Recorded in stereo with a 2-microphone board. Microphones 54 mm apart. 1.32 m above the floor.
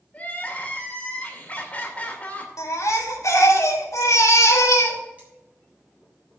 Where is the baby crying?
80° left, 1.9 m.